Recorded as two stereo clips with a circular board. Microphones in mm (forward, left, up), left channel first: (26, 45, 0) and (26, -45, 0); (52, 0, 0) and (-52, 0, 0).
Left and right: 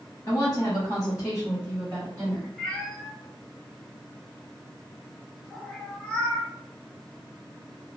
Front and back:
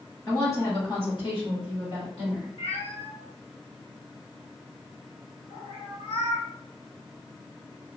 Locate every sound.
0.3 s a woman speaking: 60° left, 1.5 m; by 2.5 s 20° left, 2.0 m
2.6 s a cat meowing: 10° left, 1.1 m